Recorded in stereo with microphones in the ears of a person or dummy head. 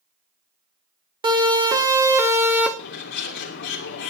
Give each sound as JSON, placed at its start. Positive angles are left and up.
{"t": 1.2, "sound": "a siren", "side_deg": -20, "distance_m": 3.0}
{"t": 2.8, "sound": "a bird", "side_deg": 55, "distance_m": 2.5}